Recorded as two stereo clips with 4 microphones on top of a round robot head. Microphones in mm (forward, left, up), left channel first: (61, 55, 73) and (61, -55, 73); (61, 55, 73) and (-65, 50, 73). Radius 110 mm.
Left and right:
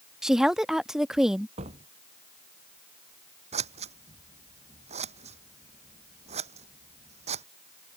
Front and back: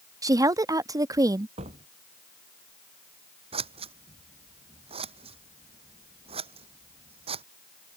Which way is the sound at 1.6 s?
130° right.